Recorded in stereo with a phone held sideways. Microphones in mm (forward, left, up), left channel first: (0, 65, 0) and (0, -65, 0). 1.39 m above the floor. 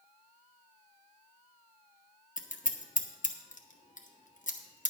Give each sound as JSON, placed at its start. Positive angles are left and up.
{"t": 2.4, "sound": "scissors", "side_deg": 80, "distance_m": 1.1}